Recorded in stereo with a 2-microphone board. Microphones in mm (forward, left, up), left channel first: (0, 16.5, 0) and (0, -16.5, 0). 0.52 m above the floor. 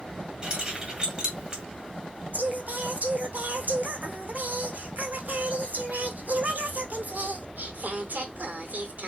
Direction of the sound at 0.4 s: 30° right (ahead or behind).